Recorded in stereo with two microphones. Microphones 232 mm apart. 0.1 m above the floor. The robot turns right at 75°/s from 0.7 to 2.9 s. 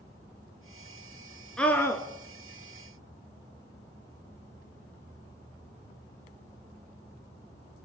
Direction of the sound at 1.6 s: 5° left (ahead or behind).